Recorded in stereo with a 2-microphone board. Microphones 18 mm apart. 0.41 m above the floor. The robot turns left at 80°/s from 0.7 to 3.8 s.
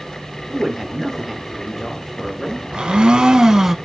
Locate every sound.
0.5 s a man speaking: 15° right (ahead or behind), 0.8 m; by 2.8 s 20° left (ahead or behind), 0.8 m
2.7 s a blender: 65° right, 0.6 m; by 3.8 s 150° right, 0.6 m